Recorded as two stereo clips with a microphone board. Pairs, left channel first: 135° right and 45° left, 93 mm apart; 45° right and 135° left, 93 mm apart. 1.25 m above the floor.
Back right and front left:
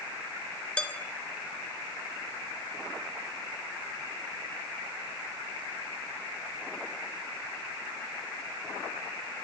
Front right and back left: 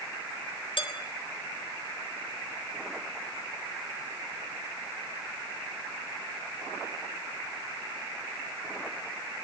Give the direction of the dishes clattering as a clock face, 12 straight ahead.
2 o'clock.